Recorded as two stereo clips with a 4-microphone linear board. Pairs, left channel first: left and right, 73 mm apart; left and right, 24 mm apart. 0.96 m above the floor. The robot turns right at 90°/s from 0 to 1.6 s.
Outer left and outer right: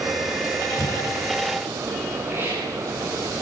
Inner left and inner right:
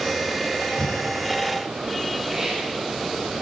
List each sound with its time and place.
0.8 s breathing: 50° left (ahead or behind), 8.5 m; by 1.1 s 75° left (ahead or behind), 8.5 m
2.3 s a hiss: 30° right (ahead or behind), 9.5 m